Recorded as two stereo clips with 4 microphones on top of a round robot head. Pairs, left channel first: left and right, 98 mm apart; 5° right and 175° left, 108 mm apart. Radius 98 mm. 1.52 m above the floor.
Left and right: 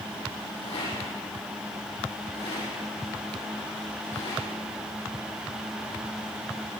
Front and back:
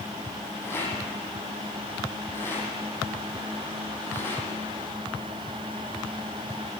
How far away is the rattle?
About 9.5 m.